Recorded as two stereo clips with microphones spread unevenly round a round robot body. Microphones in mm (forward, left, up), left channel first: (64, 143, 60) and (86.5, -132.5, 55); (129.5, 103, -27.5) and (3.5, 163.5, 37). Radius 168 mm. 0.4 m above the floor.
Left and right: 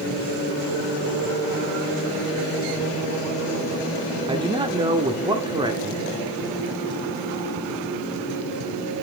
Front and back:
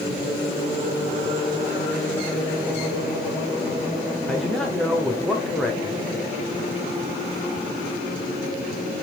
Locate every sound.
4.3 s a man speaking: 35° right, 1.3 m